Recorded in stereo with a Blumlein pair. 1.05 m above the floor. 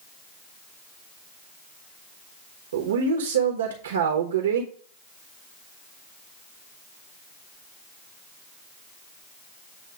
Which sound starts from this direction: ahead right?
A man speaking, at 2.7 s.